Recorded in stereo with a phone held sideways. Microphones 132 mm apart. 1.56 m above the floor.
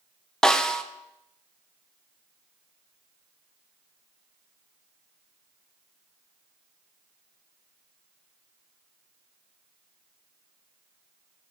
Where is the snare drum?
5° left (ahead or behind), 0.9 m.